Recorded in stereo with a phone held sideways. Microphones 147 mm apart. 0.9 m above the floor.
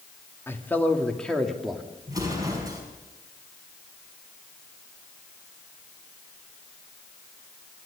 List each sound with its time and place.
0.5 s a man speaking: 15° left (ahead or behind), 2 m; by 1.9 s centre (ahead or behind), 2.5 m
2.1 s an explosion: 25° right (ahead or behind), 5.5 m